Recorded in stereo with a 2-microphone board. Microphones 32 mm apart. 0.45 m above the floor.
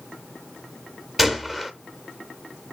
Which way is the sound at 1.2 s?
10° right (ahead or behind).